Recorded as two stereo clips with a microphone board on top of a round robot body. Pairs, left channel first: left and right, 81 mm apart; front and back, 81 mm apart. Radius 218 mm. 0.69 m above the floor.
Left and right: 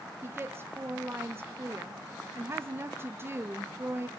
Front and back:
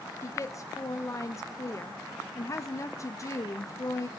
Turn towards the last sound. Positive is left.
turn(degrees=-40)